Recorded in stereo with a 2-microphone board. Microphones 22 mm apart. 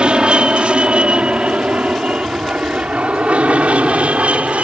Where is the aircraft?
50° right (ahead or behind); by 4.6 s 70° right (ahead or behind).